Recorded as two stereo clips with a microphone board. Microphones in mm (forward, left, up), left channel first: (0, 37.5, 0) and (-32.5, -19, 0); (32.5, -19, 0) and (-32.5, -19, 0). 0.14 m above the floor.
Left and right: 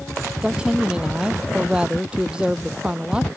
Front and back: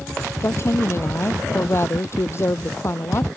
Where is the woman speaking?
45° right.